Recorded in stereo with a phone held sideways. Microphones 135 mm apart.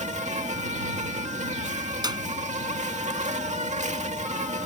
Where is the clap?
30° right (ahead or behind).